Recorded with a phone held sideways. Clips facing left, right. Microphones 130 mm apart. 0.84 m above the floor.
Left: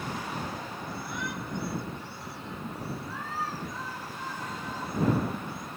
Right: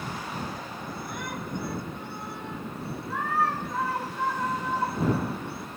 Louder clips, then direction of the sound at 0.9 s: Right 1 dB; 50° right (ahead or behind).